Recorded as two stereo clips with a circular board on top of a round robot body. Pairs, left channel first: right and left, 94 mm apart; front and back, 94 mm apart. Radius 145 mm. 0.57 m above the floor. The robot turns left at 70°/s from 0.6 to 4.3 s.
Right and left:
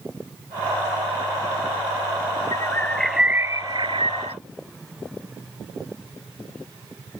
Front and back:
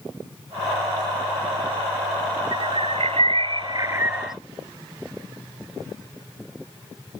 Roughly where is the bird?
Behind right.